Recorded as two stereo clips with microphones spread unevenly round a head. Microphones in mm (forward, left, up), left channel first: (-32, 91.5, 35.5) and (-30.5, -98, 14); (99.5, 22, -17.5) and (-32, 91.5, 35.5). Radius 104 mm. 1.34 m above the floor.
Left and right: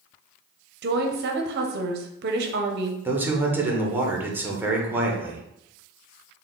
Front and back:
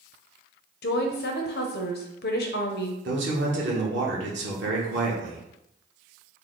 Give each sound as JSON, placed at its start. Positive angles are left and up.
{"t": 0.8, "sound": "a woman speaking", "azimuth_deg": -50, "distance_m": 0.6}
{"t": 3.0, "sound": "a man speaking", "azimuth_deg": -170, "distance_m": 0.9}